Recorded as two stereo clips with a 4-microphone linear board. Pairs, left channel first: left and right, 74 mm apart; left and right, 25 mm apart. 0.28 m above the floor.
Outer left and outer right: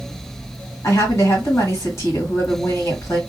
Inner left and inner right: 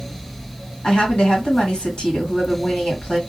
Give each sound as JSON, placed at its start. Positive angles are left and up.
{"t": 0.8, "sound": "a woman speaking", "side_deg": 40, "distance_m": 1.8}